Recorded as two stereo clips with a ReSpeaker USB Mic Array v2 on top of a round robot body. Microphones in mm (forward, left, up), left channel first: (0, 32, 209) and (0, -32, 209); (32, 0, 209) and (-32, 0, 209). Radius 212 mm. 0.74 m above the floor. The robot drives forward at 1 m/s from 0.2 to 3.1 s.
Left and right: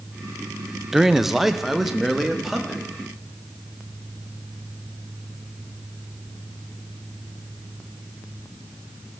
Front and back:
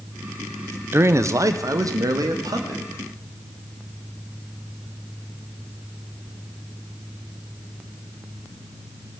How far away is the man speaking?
About 0.9 m.